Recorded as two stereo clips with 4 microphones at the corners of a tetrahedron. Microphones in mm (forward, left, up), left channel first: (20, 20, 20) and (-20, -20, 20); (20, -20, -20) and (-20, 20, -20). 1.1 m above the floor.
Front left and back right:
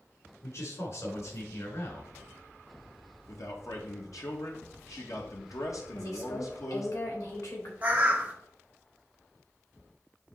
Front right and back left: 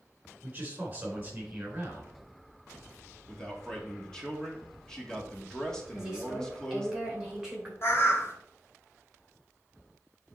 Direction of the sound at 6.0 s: 60° left.